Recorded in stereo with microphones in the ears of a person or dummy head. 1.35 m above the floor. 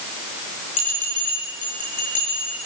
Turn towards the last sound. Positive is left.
turn(degrees=35)  # may be behind; listen again after turning